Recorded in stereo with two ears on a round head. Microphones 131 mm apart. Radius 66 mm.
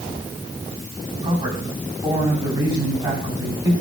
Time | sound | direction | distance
1.2 | a man speaking | 30° right (ahead or behind) | 9.5 m